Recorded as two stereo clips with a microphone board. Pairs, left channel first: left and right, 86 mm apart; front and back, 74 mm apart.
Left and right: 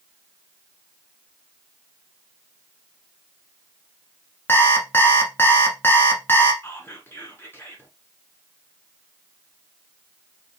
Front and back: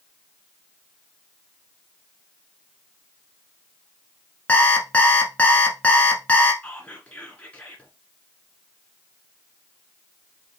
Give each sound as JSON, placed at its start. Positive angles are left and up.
{"t": 4.5, "sound": "an alarm clock", "azimuth_deg": 50, "distance_m": 1.0}
{"t": 6.6, "sound": "whispering", "azimuth_deg": 60, "distance_m": 1.5}